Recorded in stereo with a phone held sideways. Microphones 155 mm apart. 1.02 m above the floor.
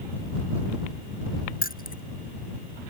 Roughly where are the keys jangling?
Left.